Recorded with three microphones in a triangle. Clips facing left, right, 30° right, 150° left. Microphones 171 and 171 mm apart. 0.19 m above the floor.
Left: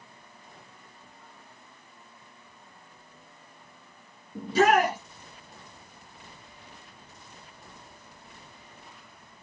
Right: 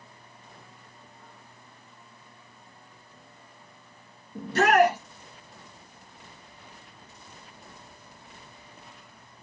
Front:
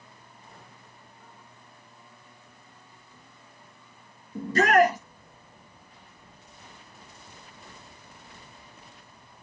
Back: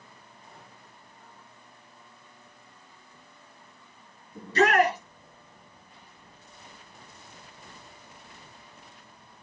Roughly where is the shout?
Ahead.